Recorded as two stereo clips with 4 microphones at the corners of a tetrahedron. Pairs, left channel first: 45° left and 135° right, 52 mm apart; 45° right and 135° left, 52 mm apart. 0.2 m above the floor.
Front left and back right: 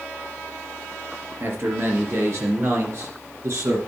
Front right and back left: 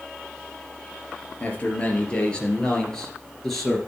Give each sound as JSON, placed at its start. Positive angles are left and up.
{"t": 1.4, "sound": "a man speaking", "azimuth_deg": -105, "distance_m": 3.0}